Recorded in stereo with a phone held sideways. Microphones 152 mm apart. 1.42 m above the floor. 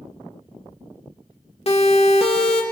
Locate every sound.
1.7 s a siren: 45° left (ahead or behind), 2.5 m